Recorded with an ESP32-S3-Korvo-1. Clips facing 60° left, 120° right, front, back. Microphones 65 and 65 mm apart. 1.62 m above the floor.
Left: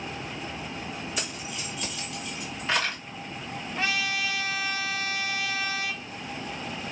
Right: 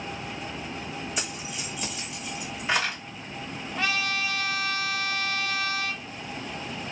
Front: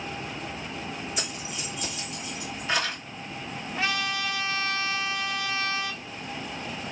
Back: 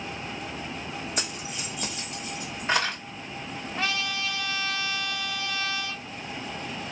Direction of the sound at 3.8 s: 35° left.